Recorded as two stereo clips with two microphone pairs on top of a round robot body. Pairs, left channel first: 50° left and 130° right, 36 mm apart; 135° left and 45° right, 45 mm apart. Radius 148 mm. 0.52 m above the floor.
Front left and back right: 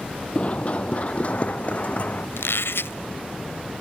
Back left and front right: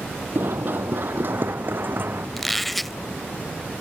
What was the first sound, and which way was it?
Running footsteps, 5° right.